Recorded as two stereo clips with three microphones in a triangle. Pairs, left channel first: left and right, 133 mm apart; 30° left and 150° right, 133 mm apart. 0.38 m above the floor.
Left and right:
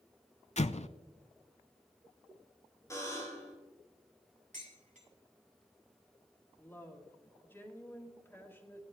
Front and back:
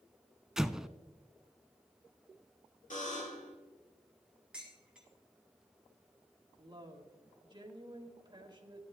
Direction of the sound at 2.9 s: 25° left.